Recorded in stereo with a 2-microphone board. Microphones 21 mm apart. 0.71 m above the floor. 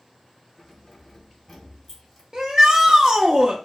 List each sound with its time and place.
0.6 s keys jangling: 10° left (ahead or behind), 1.8 m
2.3 s a shout: 35° right (ahead or behind), 0.6 m